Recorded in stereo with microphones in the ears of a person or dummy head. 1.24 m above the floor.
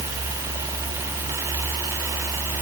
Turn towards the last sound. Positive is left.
No sound to turn to.